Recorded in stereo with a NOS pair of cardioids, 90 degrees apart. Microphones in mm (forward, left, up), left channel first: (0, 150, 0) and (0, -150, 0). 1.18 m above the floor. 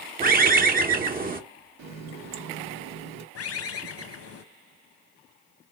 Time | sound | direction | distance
0.2 | a bird | 30° right | 0.9 m
1.8 | a running tap | 70° right | 0.9 m
3.4 | a bird | 55° left | 0.8 m